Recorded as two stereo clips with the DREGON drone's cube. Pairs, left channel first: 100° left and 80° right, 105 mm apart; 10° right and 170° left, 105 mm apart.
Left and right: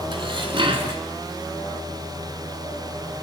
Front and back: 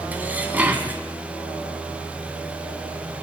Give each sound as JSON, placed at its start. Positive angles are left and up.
{"t": 0.1, "sound": "dishes clattering", "azimuth_deg": -115, "distance_m": 1.8}